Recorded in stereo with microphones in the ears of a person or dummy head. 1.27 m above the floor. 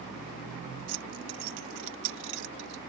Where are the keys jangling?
75° right (ahead or behind); by 2.8 s 65° right (ahead or behind).